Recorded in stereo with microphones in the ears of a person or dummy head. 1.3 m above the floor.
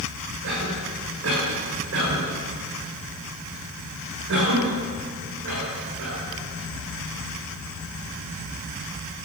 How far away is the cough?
About 6 m.